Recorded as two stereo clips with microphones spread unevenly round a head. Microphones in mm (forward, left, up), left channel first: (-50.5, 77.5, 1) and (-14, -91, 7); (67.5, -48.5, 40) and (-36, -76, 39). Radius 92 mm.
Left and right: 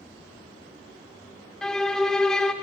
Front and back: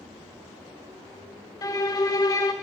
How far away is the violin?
About 1.0 m.